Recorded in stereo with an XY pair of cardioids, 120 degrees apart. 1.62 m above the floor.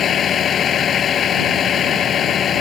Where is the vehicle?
50° left.